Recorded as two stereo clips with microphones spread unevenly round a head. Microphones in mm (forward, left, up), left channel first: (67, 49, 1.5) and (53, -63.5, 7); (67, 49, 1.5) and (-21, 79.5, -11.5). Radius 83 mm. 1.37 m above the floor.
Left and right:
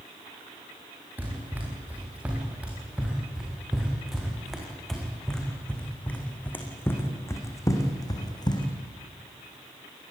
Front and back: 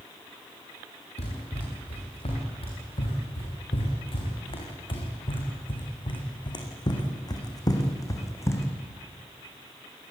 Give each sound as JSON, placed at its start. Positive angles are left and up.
{"t": 1.2, "sound": "running footsteps", "azimuth_deg": -25, "distance_m": 8.0}